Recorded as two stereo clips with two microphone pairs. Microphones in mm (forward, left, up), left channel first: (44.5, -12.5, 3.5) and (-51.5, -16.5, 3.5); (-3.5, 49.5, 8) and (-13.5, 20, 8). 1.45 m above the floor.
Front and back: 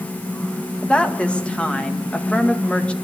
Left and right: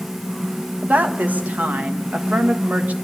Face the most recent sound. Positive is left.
turn(degrees=-80)